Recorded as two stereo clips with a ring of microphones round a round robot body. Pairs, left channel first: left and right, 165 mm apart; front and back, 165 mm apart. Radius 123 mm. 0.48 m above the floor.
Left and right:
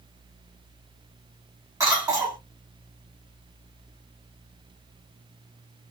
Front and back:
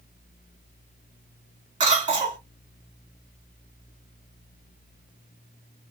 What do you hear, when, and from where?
1.8 s a cough: 145° right, 1.4 m